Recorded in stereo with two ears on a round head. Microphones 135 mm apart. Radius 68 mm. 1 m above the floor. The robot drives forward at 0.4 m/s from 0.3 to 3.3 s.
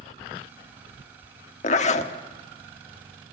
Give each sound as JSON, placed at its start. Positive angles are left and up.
{"t": 1.6, "sound": "a zipper", "side_deg": 50, "distance_m": 1.5}